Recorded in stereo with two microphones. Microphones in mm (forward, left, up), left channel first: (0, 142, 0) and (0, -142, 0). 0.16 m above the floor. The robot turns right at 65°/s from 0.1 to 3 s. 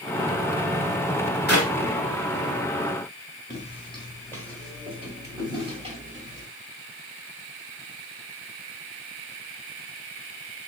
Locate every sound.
1.5 s a clap: 55° left (ahead or behind), 2 m; by 1.7 s 45° left (ahead or behind), 2 m
3.5 s footsteps: 25° left (ahead or behind), 2 m; by 6.5 s 30° right (ahead or behind), 2.5 m